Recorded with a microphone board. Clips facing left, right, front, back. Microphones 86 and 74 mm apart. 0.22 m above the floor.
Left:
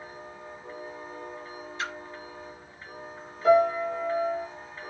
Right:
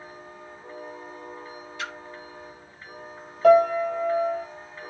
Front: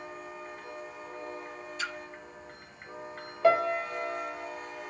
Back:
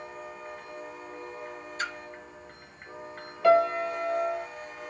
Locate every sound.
1.8 s a splash: 140° left, 0.7 m
3.4 s a piano: 65° right, 1.2 m